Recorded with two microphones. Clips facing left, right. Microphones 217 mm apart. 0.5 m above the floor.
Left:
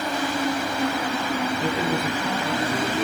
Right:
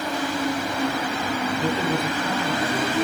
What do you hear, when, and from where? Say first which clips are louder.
1.6 s a man speaking: right 1 dB; 5° left (ahead or behind), 5 m